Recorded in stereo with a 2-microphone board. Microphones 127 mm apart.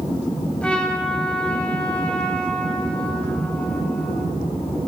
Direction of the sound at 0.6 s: 10° left (ahead or behind).